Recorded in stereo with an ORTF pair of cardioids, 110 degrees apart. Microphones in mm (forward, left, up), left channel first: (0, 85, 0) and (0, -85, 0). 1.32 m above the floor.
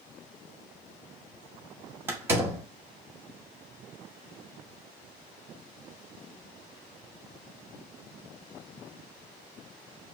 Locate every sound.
2.1 s a door slam: 15° right, 1.7 m